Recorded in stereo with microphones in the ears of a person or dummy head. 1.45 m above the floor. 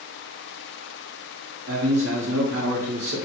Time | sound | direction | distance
1.7 | a man speaking | 45° right (ahead or behind) | 0.7 m